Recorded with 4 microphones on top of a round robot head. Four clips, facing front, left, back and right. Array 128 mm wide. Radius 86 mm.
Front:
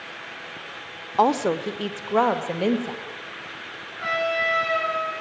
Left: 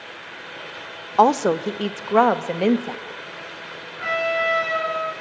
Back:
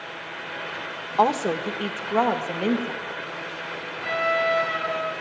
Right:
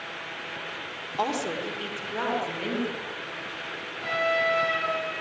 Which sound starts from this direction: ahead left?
A trumpet, at 4.0 s.